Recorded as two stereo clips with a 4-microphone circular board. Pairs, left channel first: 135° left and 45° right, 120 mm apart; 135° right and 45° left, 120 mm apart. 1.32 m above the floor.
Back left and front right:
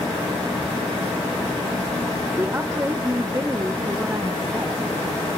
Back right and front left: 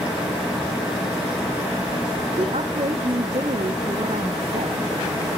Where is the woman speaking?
25° left, 0.8 m.